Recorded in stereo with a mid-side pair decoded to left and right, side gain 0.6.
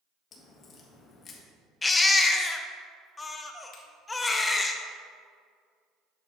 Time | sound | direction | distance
0.3 | a crack | 45° left | 1.7 m
1.8 | a baby crying | 20° left | 0.9 m
3.7 | a finger snap | 55° left | 2.5 m